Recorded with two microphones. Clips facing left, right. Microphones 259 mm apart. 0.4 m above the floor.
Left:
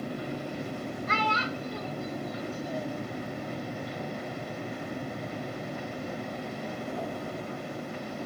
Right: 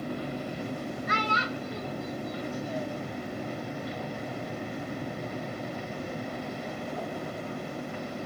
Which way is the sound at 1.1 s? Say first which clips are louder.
Left 1 dB; 15° right (ahead or behind).